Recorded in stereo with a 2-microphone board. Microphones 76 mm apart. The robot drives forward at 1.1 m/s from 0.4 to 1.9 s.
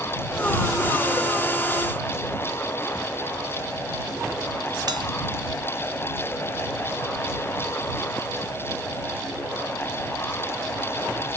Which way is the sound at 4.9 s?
65° right (ahead or behind).